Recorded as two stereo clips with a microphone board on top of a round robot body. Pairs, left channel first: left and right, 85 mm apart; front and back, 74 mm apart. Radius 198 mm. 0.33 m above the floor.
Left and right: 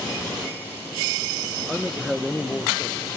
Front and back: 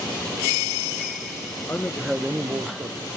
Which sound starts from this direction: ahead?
A man speaking, at 1.7 s.